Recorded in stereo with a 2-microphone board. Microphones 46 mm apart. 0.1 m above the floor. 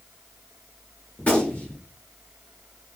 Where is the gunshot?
30° left (ahead or behind), 1.4 m.